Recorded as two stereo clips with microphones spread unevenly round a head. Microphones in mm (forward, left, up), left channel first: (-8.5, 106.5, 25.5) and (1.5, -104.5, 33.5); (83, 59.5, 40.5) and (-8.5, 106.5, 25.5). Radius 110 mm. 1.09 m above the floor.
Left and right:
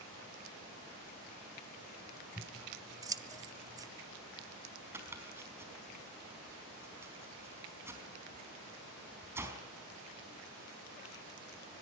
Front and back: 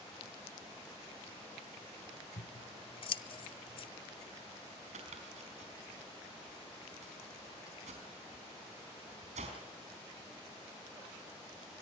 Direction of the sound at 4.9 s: 165° right.